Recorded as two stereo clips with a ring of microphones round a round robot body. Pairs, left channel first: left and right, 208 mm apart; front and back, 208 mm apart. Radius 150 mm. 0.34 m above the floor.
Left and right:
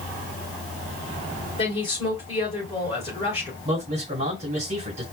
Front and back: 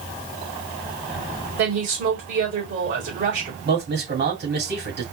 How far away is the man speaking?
About 2.5 m.